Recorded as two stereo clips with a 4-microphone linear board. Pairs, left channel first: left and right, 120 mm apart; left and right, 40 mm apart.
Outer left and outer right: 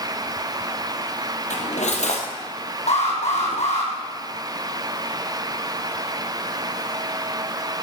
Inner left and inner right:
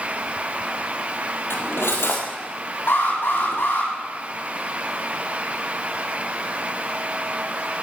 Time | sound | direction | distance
1.5 | cutlery clinking | 80° left | 3 m
2.9 | an alarm | 70° left (ahead or behind) | 4.5 m